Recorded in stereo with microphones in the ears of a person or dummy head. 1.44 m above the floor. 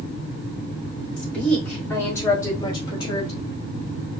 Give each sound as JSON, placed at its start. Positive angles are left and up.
{"t": 1.2, "sound": "a woman speaking", "side_deg": 5, "distance_m": 2.5}